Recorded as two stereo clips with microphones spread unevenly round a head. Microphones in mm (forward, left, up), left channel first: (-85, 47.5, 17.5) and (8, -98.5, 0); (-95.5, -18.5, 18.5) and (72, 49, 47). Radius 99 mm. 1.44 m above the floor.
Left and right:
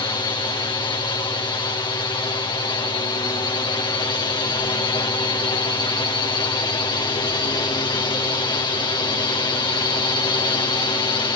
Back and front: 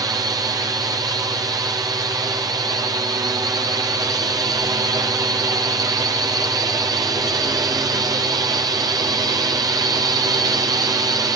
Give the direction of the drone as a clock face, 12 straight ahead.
9 o'clock.